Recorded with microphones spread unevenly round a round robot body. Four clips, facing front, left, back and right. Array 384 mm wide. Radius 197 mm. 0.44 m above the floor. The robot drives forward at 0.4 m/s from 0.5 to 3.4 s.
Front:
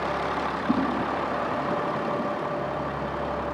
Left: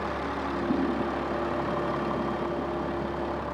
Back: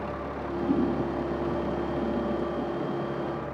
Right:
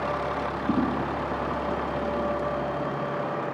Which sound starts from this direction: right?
A whoosh, at 0.7 s.